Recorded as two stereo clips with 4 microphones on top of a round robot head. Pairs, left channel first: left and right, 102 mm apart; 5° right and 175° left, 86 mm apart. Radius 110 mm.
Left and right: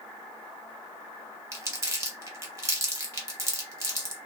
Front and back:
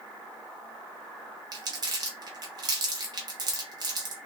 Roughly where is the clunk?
No clunk in this recording.